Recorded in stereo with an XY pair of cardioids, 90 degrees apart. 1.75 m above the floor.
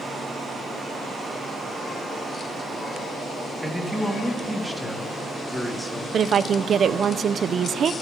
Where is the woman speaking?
55° right, 1.0 m.